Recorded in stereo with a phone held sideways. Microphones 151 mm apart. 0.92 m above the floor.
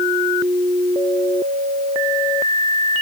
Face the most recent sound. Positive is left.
No sound to turn to.